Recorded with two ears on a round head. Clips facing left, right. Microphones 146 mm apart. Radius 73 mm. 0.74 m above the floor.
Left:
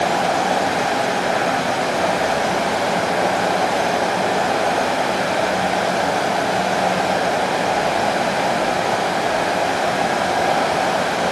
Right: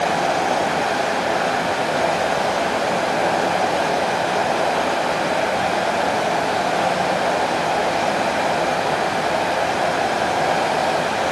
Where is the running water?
15° left (ahead or behind), 1.0 m.